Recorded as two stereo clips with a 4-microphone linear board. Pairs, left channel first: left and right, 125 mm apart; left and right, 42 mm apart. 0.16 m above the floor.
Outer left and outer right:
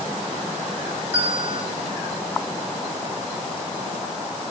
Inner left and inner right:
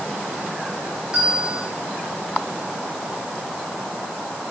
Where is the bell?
20° right (ahead or behind), 3 m.